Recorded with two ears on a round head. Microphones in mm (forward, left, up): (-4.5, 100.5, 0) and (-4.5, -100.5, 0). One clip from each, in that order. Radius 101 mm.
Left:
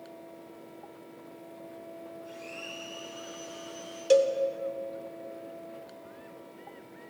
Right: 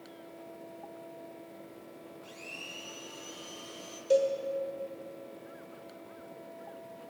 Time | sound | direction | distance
2.2 | a blender | 80° right | 5 m
4.1 | a cowbell | 45° left (ahead or behind) | 1.0 m